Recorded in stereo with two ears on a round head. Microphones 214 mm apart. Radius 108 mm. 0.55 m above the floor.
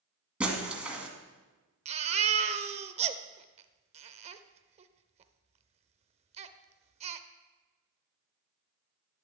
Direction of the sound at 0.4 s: 5° right (ahead or behind).